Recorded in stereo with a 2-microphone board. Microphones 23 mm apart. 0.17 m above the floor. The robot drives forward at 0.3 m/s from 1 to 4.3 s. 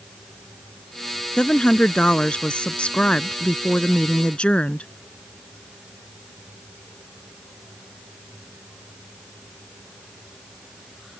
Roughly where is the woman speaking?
Left.